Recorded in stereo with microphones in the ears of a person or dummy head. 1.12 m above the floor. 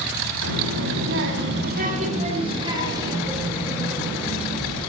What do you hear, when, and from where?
0.4 s a child speaking: 75° right (ahead or behind), 1.9 m; by 4.8 s 5° right (ahead or behind), 4 m